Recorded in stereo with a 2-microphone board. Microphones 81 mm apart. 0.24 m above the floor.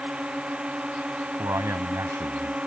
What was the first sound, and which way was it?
A drone, 15° right (ahead or behind).